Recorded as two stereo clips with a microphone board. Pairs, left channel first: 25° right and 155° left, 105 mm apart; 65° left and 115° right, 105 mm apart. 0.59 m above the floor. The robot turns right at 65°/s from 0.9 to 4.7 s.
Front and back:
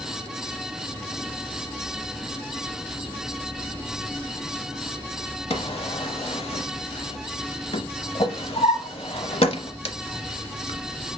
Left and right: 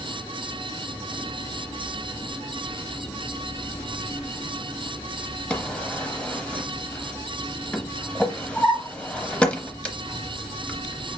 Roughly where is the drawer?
Ahead.